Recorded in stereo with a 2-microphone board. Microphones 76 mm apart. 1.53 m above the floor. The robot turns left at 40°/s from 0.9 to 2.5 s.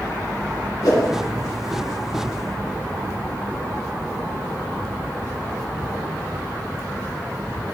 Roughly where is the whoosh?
Left.